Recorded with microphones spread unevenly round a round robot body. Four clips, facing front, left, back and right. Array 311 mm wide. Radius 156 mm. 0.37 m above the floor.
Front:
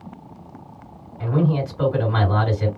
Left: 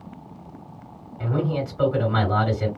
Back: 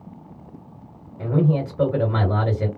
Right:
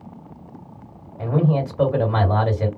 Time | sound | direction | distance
1.2 | a man speaking | 135° right | 1.8 m